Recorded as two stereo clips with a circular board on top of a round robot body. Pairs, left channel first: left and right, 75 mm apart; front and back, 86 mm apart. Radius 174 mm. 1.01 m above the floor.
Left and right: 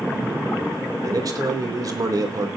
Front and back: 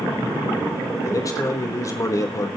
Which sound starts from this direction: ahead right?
A man speaking, at 1.0 s.